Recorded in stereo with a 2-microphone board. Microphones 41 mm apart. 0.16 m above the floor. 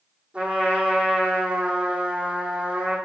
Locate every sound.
0.3 s a trumpet: 30° right (ahead or behind), 4.5 m